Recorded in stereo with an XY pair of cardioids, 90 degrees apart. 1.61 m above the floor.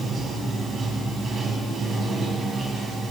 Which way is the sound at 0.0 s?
55° right.